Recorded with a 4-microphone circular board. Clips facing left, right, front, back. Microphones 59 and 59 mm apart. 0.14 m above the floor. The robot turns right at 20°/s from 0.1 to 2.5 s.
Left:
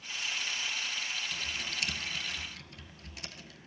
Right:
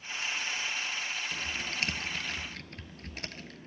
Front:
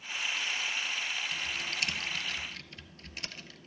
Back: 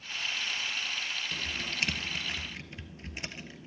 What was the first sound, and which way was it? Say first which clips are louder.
Typing on a keyboard: right 2 dB, even; 140° right.